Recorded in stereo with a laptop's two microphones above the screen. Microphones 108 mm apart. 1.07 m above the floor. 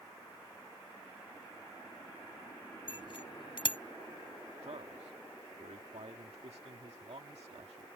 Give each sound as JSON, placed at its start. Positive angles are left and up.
{"t": 2.9, "sound": "a bicycle bell", "side_deg": 50}
{"t": 4.6, "sound": "a man speaking", "side_deg": -80}